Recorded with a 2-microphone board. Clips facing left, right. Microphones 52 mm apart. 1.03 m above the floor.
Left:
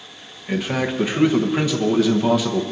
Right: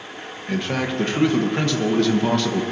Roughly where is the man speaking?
Centre.